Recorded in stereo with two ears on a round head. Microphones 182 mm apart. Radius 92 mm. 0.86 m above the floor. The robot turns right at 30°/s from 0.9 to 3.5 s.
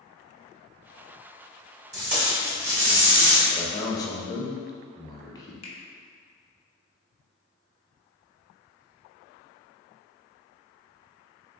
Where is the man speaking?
20° left (ahead or behind), 0.7 m.